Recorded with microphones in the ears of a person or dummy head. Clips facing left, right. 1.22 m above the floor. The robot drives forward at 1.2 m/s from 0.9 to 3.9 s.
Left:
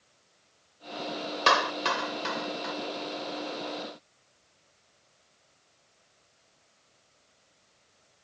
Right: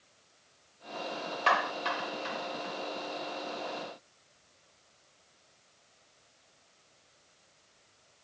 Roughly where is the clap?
Left.